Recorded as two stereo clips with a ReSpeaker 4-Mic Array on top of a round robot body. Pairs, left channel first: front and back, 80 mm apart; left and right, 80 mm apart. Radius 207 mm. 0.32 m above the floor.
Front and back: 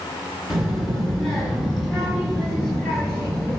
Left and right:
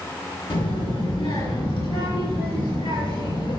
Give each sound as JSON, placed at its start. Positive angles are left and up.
{"t": 0.5, "sound": "a child speaking", "azimuth_deg": 95, "distance_m": 4.0}